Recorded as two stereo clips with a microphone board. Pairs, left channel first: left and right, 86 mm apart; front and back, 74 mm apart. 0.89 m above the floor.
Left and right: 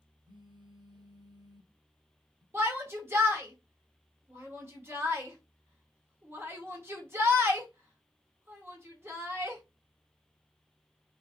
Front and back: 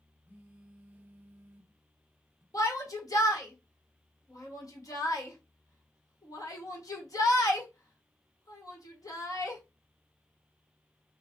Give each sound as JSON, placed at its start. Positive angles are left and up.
{"t": 0.3, "sound": "a phone buzzing", "azimuth_deg": -115, "distance_m": 0.6}
{"t": 2.5, "sound": "a shout", "azimuth_deg": -30, "distance_m": 1.3}